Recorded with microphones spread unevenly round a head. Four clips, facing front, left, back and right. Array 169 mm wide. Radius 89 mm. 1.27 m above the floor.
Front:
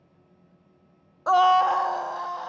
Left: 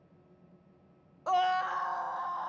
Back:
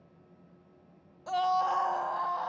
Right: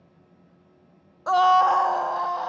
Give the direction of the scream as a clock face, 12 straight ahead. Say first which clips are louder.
Right 11 dB, front 10 dB; 1 o'clock.